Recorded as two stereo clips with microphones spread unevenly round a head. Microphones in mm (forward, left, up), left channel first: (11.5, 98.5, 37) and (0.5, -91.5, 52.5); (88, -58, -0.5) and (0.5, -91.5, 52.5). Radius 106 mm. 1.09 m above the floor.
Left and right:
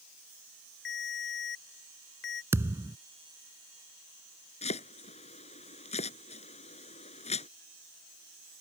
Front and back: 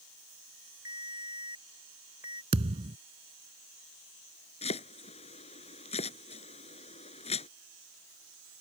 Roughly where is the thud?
Behind.